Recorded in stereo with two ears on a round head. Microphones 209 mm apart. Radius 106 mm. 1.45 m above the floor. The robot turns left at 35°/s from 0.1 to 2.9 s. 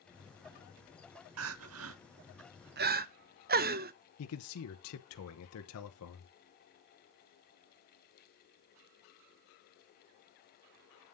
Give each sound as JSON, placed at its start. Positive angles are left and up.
{"t": 1.4, "sound": "crying", "side_deg": -65, "distance_m": 0.8}
{"t": 4.2, "sound": "a man speaking", "side_deg": 75, "distance_m": 1.1}